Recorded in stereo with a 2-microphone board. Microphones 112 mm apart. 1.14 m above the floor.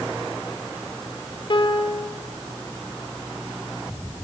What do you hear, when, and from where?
1.5 s a piano: 45° left (ahead or behind), 3 m